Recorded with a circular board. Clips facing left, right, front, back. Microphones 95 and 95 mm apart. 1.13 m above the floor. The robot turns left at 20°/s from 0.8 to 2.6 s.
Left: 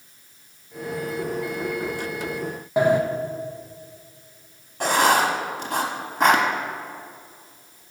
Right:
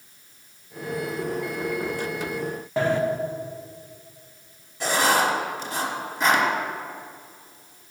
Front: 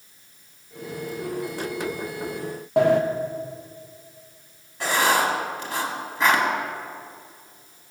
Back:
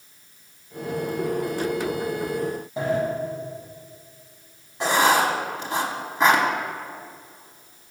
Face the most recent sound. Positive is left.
turn(degrees=115)